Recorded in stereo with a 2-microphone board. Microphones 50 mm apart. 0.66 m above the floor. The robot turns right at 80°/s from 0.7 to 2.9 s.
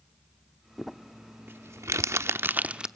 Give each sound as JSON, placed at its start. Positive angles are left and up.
{"t": 0.8, "sound": "crumpling", "side_deg": 5, "distance_m": 0.7}